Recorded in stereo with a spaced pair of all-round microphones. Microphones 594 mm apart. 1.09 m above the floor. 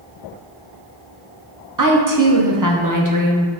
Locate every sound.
1.8 s a woman speaking: 35° right (ahead or behind), 0.7 m